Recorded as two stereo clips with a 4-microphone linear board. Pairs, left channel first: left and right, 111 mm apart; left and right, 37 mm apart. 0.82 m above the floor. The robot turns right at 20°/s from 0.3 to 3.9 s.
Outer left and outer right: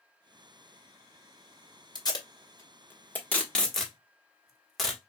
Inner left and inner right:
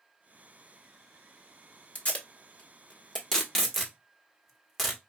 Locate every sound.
1.9 s tape being pulled: 40° left (ahead or behind), 1.2 m; by 5.0 s centre (ahead or behind), 1.2 m